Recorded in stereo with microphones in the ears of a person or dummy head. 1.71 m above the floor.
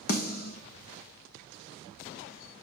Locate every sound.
0.1 s a snare drum: 45° left (ahead or behind), 0.8 m